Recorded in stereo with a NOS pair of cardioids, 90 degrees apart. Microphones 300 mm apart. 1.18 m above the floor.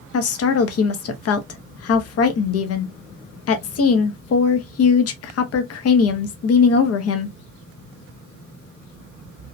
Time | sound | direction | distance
0.1 | a woman speaking | 55° left | 0.7 m